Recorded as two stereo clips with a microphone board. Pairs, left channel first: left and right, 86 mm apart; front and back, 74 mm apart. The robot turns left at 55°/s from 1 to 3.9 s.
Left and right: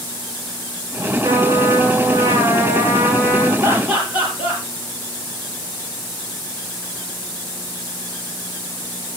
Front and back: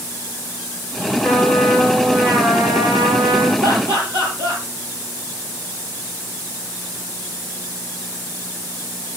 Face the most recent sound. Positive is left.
turn(degrees=-160)